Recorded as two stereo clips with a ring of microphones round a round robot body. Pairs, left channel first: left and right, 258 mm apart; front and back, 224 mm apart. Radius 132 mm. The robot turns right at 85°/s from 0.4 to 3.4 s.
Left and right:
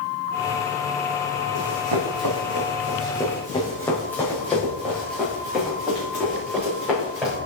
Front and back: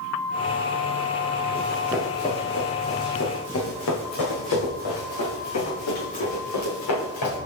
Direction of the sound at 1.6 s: 125° right.